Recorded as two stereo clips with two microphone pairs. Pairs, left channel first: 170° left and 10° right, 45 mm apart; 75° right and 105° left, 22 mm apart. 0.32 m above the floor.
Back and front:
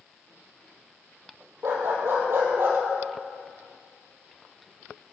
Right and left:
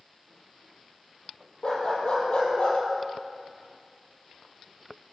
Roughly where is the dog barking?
Ahead right.